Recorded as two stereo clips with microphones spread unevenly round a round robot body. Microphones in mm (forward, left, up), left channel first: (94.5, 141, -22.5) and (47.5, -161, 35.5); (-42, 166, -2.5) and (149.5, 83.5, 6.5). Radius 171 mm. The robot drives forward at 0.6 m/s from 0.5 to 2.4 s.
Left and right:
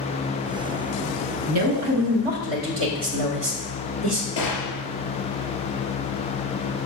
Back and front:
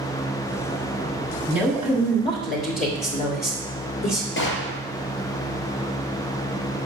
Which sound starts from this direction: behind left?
A gunshot, at 4.4 s.